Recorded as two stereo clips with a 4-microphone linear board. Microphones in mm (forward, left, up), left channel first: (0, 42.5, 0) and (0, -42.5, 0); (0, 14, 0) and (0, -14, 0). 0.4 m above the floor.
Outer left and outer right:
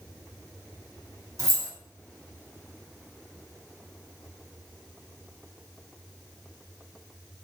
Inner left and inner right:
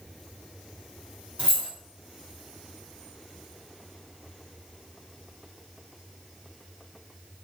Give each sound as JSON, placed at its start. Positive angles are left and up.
{"t": 1.4, "sound": "keys jangling", "side_deg": -40, "distance_m": 0.9}